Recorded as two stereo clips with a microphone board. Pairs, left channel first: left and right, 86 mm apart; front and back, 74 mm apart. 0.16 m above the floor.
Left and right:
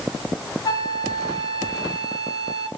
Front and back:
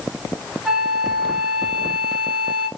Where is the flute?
100° left, 0.8 m.